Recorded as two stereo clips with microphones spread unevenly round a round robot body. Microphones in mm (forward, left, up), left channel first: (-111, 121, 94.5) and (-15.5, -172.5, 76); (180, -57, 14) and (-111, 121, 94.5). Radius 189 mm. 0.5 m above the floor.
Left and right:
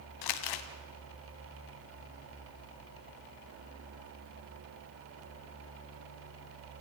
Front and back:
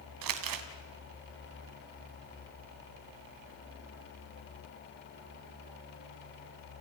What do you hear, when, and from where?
0.2 s crumpling: 115° left, 1.7 m